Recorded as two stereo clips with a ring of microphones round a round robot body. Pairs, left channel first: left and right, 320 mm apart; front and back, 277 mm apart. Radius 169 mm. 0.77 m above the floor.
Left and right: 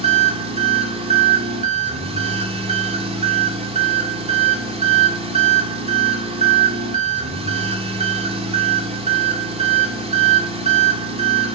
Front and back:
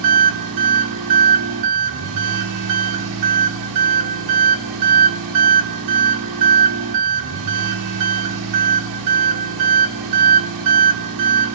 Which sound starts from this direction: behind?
An engine running, at 0.0 s.